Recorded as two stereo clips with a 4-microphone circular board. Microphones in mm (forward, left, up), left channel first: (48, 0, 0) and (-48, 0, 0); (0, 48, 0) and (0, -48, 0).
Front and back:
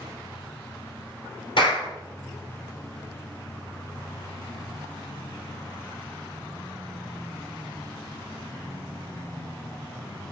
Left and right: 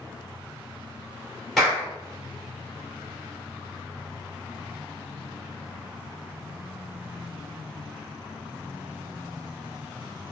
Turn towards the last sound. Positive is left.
turn(degrees=0)